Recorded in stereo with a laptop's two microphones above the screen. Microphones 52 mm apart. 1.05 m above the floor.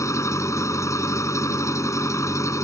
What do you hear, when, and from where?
0.0 s an engine running: 80° left